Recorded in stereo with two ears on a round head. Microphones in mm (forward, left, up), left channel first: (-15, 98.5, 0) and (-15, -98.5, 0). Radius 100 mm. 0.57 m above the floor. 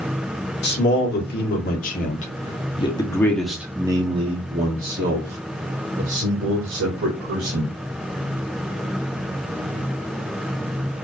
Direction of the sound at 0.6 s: 55° left (ahead or behind).